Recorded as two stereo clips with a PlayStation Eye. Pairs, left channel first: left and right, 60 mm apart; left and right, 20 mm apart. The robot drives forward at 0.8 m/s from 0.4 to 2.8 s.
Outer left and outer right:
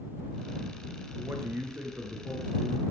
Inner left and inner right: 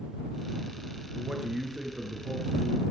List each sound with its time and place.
1.1 s a man speaking: 35° right (ahead or behind), 5.5 m; by 2.8 s 30° right (ahead or behind), 6.5 m